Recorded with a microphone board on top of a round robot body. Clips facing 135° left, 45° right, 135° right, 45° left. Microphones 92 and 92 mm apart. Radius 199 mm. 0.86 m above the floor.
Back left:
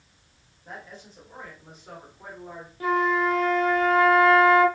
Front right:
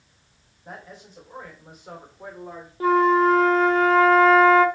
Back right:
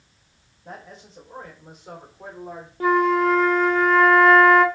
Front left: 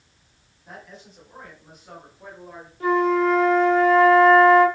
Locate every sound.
0.7 s a man speaking: 115° right, 4 m; by 2.7 s 135° right, 4 m
2.8 s a flute: 105° right, 1.3 m